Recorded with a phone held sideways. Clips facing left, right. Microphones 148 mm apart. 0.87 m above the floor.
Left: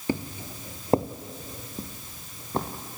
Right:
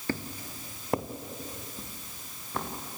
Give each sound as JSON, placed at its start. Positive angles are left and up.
{"t": 0.1, "sound": "footsteps", "side_deg": 15, "distance_m": 0.8}